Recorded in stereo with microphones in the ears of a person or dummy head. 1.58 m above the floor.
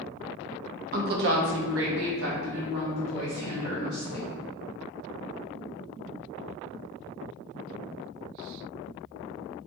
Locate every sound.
0.9 s a woman speaking: 50° right (ahead or behind), 1.1 m; by 4.3 s 45° right (ahead or behind), 3.5 m